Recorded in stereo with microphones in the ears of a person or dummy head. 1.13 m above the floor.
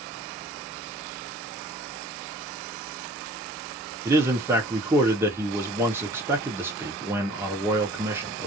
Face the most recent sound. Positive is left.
turn(degrees=-15)  # may be behind; listen again after turning